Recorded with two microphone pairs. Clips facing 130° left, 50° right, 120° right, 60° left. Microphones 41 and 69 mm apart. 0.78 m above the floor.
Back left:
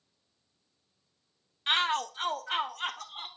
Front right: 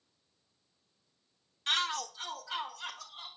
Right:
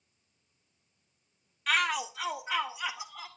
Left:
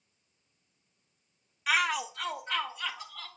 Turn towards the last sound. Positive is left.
turn(degrees=160)